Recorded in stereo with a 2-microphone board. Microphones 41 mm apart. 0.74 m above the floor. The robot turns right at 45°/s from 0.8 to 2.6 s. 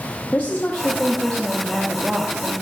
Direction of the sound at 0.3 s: 140° left.